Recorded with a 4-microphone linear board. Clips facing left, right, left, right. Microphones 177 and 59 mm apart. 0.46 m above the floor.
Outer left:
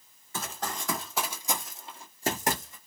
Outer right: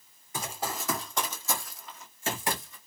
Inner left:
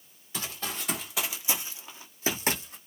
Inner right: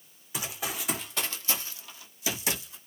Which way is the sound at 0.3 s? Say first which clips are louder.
Outer right 1 dB, inner right 1 dB; 15° right (ahead or behind).